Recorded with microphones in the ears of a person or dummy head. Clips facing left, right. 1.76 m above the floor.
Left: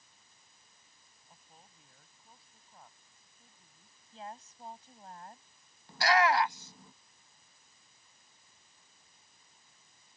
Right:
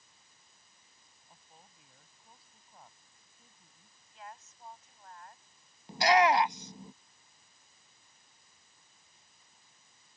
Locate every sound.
1.3 s a woman speaking: centre (ahead or behind)
4.1 s a woman speaking: 30° left (ahead or behind)
5.9 s a shout: 15° right (ahead or behind)